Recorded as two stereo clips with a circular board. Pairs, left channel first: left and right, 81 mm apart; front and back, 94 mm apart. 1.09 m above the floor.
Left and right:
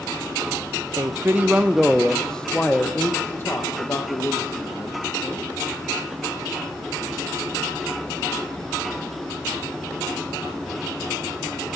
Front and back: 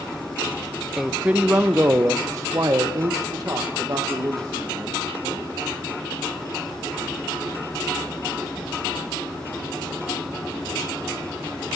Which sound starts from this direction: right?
A man speaking, at 1.0 s.